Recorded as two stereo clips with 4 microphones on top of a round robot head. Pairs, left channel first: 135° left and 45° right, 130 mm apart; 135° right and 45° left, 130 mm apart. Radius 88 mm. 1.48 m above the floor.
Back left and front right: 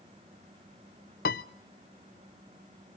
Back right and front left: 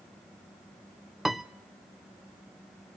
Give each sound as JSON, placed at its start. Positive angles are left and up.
{"t": 1.2, "sound": "a piano", "azimuth_deg": 135, "distance_m": 0.5}